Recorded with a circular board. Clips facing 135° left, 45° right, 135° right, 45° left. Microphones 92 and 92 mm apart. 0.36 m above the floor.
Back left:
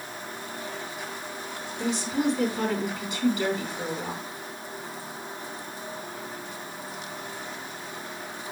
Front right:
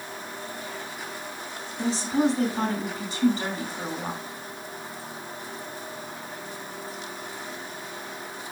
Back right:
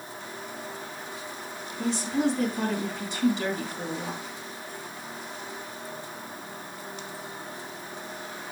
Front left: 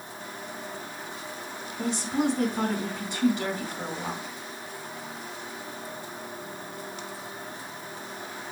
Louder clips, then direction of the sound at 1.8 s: Front right 3 dB, back right 1 dB; 10° left.